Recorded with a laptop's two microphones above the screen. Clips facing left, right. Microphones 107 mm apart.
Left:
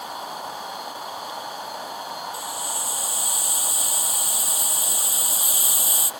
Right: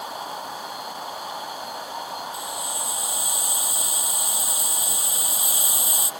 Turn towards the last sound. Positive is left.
turn(degrees=-20)  # may be behind; listen again after turning